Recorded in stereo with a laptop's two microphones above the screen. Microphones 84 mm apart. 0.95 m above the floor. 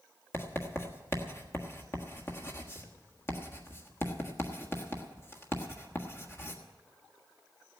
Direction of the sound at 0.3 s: 30° left (ahead or behind).